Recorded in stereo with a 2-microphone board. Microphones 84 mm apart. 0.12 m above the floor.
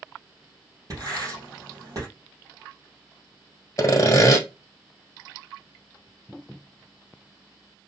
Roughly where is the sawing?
Left.